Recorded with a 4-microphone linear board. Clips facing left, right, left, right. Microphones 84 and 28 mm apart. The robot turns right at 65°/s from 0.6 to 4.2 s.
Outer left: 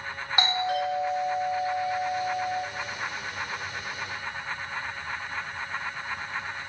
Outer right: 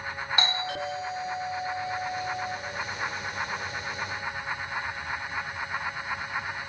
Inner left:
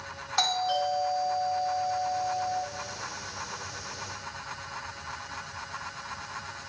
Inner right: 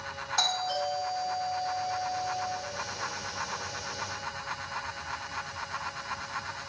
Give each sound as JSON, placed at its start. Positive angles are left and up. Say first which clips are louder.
{"t": 0.4, "sound": "a doorbell", "louder": "outer left 6 dB, inner left 3 dB", "side_deg": 15, "distance_m": 1.9}